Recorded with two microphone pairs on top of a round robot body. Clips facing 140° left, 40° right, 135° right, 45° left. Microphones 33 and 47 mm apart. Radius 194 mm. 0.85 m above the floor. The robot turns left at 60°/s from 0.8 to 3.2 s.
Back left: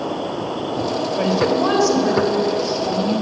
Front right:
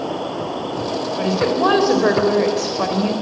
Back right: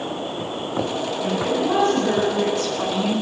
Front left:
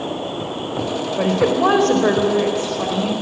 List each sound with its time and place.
1.2 s a woman speaking: 60° left, 3.5 m; by 3.1 s 55° right, 3.5 m